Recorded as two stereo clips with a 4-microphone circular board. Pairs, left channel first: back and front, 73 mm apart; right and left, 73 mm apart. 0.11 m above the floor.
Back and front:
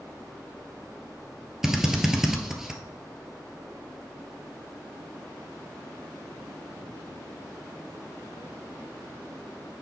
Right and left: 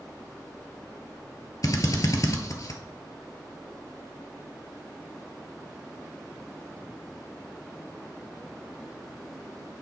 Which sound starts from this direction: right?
A drill, at 1.6 s.